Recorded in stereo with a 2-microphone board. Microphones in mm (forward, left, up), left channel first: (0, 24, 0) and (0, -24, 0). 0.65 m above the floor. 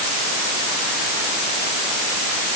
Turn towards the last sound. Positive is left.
No sound to turn to.